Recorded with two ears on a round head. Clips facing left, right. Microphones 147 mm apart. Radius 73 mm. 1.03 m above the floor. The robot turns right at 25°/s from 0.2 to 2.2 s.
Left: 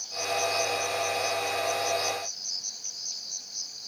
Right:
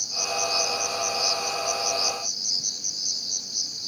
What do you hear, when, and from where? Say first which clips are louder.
0.0 s an insect: even; 115° right; by 3.9 s 65° right